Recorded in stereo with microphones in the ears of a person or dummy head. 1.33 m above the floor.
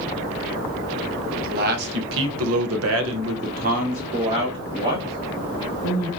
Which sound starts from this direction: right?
A man speaking, at 1.4 s.